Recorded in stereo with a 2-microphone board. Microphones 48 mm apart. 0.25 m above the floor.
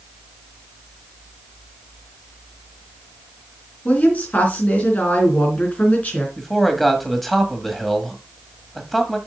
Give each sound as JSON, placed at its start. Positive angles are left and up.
{"t": 3.9, "sound": "a woman speaking", "side_deg": 35, "distance_m": 3.0}
{"t": 6.4, "sound": "a man speaking", "side_deg": 0, "distance_m": 1.6}